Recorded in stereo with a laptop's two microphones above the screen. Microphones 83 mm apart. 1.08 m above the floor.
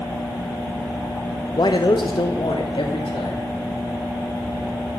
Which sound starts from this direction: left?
A man speaking, at 1.6 s.